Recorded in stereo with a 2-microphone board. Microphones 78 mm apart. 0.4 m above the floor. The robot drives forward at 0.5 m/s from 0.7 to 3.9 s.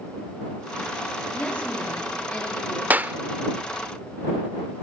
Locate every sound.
1.3 s a woman speaking: 15° left (ahead or behind), 7 m
2.9 s a clap: 25° right (ahead or behind), 0.7 m